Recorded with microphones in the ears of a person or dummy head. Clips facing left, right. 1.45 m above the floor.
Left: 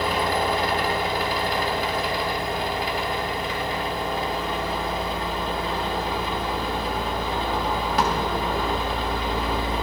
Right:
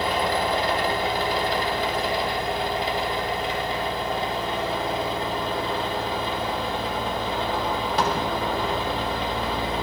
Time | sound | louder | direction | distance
0.0 | a machine running | even | 25° right (ahead or behind) | 2.0 m